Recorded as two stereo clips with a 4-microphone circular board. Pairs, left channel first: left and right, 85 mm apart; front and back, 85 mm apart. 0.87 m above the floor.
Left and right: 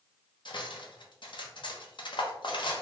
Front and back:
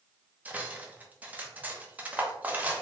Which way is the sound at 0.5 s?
110° left.